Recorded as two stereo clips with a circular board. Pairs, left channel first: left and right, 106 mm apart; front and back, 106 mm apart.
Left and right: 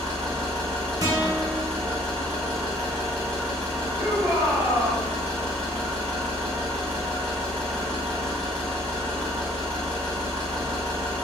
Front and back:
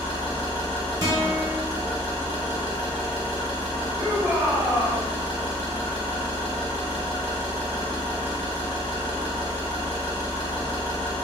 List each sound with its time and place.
0.0 s an engine running: 10° left, 1.6 m
1.0 s a guitar: 135° right, 1.1 m
4.0 s a shout: 115° right, 1.4 m